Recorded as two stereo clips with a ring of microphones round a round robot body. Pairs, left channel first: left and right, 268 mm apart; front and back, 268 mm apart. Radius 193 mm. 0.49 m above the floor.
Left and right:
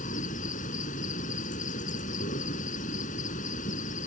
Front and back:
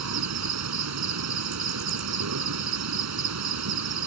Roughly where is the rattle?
No rattle in this recording.